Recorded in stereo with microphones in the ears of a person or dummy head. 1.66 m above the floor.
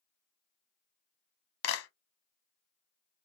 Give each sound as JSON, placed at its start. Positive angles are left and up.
{"t": 1.6, "sound": "a clap", "side_deg": 75, "distance_m": 0.9}